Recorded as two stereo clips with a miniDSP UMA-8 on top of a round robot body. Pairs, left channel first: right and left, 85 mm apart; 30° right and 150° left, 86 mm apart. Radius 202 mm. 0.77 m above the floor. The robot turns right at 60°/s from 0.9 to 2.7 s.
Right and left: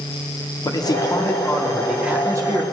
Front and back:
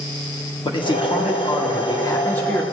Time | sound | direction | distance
0.7 | a man speaking | 50° right | 1.2 m